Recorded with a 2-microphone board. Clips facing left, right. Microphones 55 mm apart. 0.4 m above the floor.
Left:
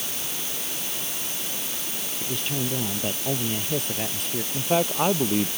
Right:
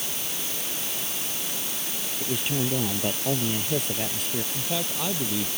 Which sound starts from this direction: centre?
A man speaking, at 2.2 s.